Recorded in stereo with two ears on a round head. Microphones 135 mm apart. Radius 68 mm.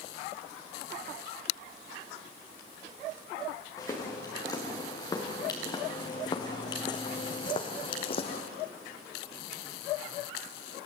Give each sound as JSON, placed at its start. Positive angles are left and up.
{"t": 3.8, "sound": "footsteps", "side_deg": 20, "distance_m": 5.0}